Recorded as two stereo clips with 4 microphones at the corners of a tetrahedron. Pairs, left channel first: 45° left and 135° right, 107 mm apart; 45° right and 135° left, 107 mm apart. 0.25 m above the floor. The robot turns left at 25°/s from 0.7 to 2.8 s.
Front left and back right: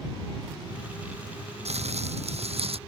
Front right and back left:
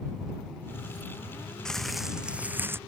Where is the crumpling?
130° right; by 2.8 s 155° right.